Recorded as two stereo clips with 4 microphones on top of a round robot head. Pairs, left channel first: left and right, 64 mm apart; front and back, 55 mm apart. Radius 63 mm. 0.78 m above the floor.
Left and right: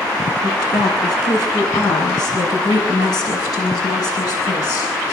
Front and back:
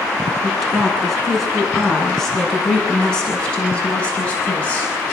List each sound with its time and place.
0.4 s a woman speaking: 90° left, 8.5 m; by 4.9 s 65° left, 6.5 m